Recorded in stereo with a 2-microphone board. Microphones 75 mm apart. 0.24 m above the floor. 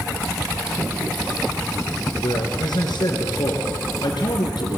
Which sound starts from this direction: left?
A man speaking, at 2.2 s.